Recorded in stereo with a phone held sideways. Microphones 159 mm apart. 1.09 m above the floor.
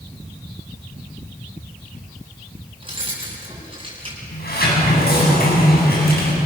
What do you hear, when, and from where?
2.8 s keys jangling: 35° right (ahead or behind), 6.5 m
4.3 s a sliding door: 85° left, 7.5 m